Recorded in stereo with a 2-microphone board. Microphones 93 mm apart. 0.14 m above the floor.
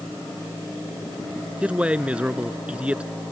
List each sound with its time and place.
1.6 s a man speaking: 10° right (ahead or behind)